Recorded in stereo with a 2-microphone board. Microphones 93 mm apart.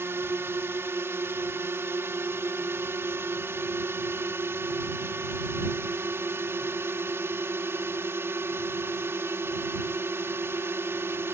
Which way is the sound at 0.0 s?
30° right (ahead or behind).